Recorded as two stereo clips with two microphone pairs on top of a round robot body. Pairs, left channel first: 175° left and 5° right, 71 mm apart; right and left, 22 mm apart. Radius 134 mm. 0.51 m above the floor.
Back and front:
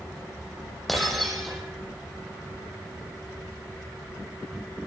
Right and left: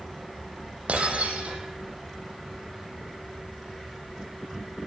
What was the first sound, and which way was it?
Breaking glass, 85° left.